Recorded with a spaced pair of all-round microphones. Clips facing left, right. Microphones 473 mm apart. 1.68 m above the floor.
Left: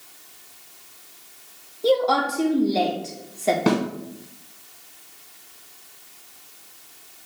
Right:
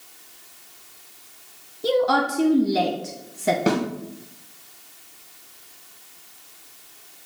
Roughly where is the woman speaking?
Right.